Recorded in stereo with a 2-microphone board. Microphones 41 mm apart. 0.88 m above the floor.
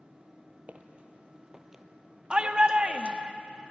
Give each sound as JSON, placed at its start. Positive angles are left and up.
{"t": 0.7, "sound": "footsteps", "side_deg": -35, "distance_m": 1.6}
{"t": 2.3, "sound": "a shout", "side_deg": -25, "distance_m": 1.4}